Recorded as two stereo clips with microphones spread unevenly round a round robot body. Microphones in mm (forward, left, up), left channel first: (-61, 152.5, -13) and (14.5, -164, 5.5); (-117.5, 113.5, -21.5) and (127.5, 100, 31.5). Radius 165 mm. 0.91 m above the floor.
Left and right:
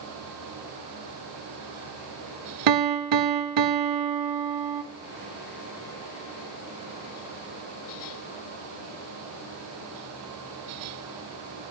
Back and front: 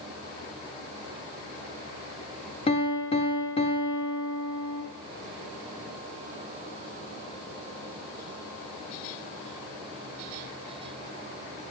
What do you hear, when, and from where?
2.7 s a piano: 110° right, 0.6 m